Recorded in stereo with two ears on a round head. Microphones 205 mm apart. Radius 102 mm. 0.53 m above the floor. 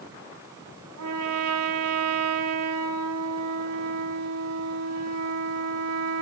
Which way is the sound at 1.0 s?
80° right.